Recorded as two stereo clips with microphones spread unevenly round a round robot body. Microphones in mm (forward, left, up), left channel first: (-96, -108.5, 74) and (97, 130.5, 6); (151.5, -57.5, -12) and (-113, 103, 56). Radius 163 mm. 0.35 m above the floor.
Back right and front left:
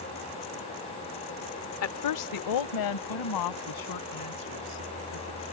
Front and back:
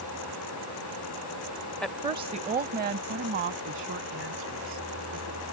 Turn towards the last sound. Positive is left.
turn(degrees=-155)